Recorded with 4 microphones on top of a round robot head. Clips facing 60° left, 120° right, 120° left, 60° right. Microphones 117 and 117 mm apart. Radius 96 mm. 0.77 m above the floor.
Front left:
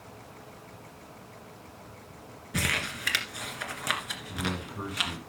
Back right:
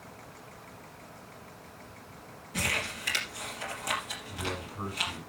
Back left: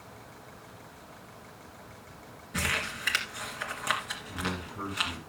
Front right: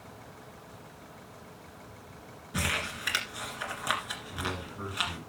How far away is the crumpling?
About 2.0 m.